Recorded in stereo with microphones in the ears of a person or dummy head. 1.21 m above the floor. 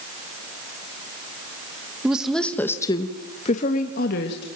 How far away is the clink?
No clink in this recording.